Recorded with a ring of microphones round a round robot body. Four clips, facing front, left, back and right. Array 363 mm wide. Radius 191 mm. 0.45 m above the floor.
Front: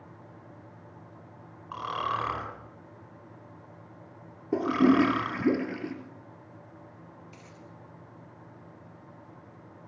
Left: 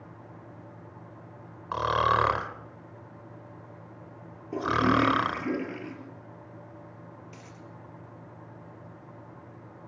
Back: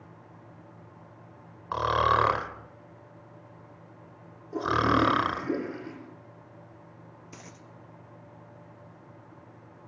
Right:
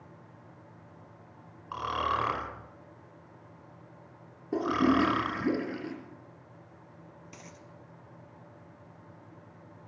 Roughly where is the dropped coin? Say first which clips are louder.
Left 3 dB, back 1 dB; behind right.